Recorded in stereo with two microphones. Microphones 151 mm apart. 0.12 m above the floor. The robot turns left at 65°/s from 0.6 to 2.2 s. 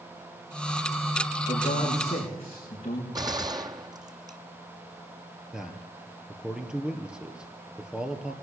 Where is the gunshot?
25° right (ahead or behind), 0.9 m.